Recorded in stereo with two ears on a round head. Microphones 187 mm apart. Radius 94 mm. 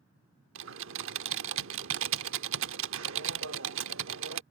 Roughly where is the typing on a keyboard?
Right.